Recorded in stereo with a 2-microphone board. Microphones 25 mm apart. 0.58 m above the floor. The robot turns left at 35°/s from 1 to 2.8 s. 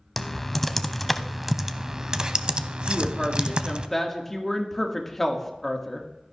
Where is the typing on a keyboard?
5° left (ahead or behind), 0.6 m; by 3.9 s 45° right (ahead or behind), 0.6 m.